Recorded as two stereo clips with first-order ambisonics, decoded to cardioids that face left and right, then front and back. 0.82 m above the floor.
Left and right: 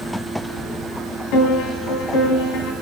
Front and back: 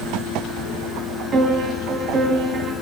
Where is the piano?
120° left, 3 m.